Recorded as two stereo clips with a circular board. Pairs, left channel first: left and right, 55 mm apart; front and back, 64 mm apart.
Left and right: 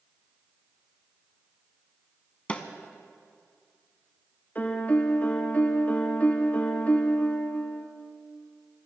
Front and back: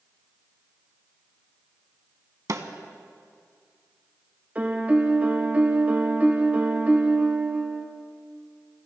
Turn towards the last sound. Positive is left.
turn(degrees=130)